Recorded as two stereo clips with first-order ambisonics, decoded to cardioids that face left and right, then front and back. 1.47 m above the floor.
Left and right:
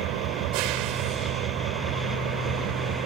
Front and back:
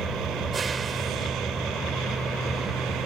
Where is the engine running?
110° right.